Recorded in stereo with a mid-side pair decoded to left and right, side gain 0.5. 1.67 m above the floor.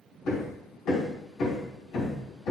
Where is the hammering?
65° left, 3 m.